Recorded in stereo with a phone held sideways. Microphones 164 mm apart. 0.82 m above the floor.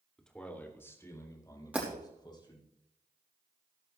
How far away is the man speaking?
About 2.5 m.